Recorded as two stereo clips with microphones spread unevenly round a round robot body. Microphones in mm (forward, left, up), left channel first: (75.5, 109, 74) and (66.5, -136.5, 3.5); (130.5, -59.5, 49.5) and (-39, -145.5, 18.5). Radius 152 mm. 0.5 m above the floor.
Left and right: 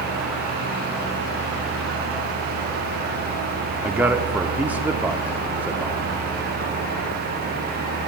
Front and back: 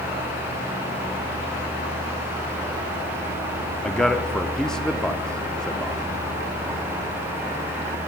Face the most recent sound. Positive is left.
turn(degrees=-80)